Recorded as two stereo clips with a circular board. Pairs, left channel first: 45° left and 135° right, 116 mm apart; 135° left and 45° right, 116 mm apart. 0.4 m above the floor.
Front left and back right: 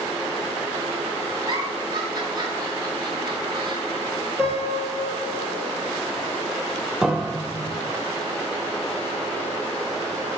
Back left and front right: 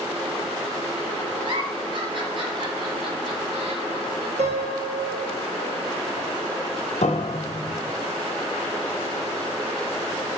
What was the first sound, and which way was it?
A giggle, 85° right.